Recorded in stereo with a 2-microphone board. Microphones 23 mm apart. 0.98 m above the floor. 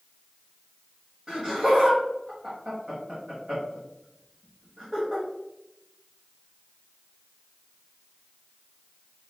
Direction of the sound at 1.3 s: 30° right (ahead or behind).